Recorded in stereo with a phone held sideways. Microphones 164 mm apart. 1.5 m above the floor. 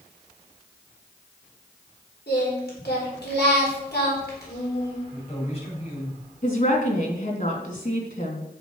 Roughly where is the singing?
Left.